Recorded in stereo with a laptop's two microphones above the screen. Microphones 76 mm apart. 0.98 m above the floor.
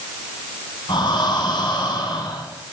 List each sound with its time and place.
0.9 s breathing: 80° left, 7.5 m